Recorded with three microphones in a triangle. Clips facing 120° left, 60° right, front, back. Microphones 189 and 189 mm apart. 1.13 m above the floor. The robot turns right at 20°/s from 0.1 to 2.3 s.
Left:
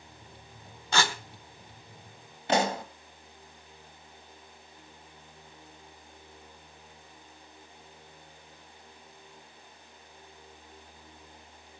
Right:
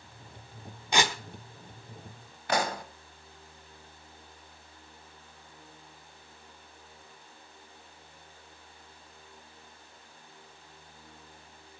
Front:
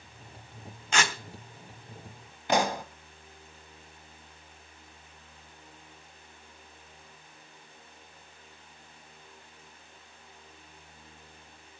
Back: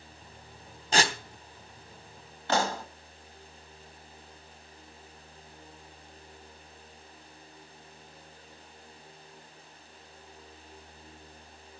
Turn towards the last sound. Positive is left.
turn(degrees=65)